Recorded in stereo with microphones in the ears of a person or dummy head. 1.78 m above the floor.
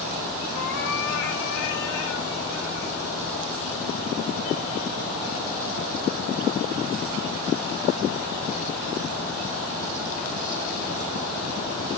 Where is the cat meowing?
50° left (ahead or behind), 2 m; by 3.0 s 60° left (ahead or behind), 4 m.